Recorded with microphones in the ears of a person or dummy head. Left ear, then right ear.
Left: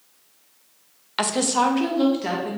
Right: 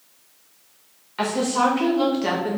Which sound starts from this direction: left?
A woman speaking, at 1.2 s.